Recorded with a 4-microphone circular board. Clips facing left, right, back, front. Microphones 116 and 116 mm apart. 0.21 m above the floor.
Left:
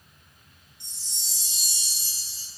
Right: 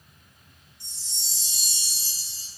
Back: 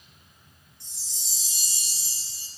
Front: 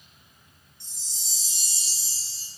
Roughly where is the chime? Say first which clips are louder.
Right 1 dB, front 1 dB; ahead left.